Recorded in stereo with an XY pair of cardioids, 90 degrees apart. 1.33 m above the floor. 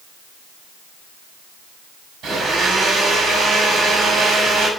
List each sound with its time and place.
2.2 s a blender: 70° right, 6 m